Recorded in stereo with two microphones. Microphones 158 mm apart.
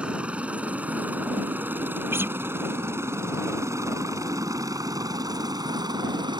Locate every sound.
0.0 s a helicopter: 5° right (ahead or behind); by 6.4 s 30° right (ahead or behind)
2.1 s a guitar: 15° right (ahead or behind)